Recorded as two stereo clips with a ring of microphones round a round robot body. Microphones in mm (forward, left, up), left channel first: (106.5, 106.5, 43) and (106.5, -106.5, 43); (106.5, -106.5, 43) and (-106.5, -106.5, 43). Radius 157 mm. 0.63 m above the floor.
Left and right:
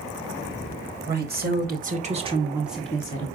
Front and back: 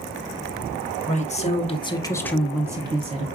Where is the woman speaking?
55° right, 1.5 m; by 3.3 s 150° left, 0.9 m.